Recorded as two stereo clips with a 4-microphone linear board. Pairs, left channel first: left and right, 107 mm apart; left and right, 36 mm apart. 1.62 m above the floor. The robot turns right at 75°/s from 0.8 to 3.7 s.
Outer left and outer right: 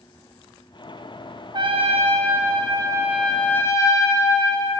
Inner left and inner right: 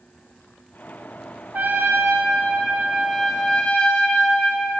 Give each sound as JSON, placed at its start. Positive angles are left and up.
{"t": 1.5, "sound": "a trumpet", "azimuth_deg": -130, "distance_m": 0.7}